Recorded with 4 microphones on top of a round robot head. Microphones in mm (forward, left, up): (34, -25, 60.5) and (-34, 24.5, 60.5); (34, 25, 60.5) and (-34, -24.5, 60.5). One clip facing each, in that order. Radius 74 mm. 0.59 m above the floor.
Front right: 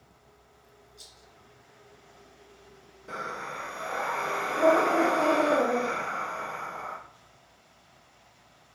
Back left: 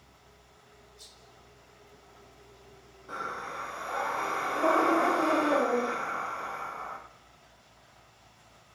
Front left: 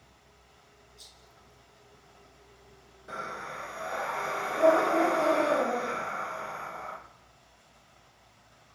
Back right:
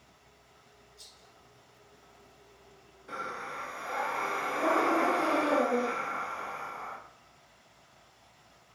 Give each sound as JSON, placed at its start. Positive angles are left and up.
{"t": 1.0, "sound": "a rattle", "azimuth_deg": -50, "distance_m": 2.0}
{"t": 3.1, "sound": "breathing", "azimuth_deg": -30, "distance_m": 2.0}